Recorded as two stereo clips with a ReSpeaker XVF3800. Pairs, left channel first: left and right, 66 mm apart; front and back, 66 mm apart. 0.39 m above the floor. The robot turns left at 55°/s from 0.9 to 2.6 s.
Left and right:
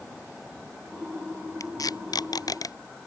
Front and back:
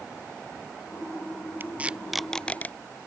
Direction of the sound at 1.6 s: 120° left.